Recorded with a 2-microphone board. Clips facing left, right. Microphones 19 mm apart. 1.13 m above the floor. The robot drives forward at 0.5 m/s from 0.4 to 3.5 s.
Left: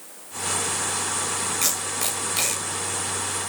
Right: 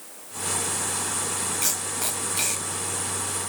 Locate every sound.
1.6 s tape being pulled: 85° left, 5.5 m